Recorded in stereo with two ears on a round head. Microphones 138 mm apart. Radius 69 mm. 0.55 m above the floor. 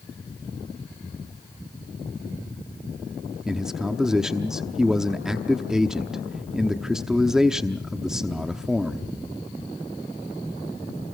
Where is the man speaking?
5° right (ahead or behind), 0.9 m.